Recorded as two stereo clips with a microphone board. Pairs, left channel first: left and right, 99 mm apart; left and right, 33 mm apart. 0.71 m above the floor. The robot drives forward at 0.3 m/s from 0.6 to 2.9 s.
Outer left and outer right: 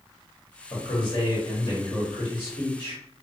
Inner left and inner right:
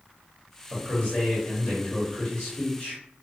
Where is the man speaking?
50° left (ahead or behind), 1.2 m; by 3.0 s 35° left (ahead or behind), 1.5 m.